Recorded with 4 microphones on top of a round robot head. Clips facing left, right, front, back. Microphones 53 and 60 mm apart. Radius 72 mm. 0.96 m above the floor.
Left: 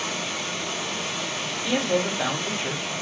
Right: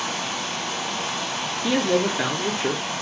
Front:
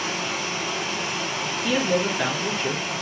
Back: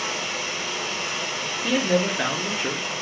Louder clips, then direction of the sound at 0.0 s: Right 2 dB, front 1 dB; 80° right.